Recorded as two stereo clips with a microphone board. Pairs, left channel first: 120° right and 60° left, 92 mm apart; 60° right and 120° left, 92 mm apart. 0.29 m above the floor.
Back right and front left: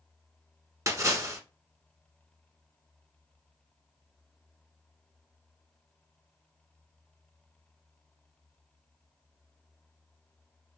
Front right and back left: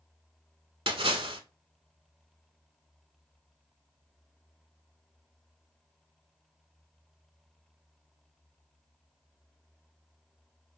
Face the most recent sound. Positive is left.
turn(degrees=115)